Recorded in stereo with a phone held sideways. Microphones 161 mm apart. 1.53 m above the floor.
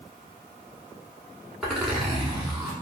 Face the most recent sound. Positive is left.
turn(degrees=-5)  # may be behind; listen again after turning